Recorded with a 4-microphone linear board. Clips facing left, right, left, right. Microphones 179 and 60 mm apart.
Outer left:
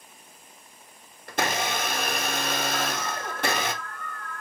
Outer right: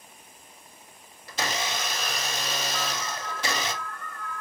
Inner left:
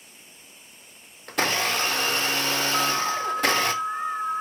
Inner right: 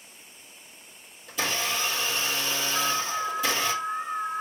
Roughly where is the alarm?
Left.